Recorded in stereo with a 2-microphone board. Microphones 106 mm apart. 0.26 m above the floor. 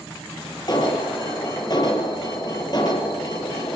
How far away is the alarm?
About 7 m.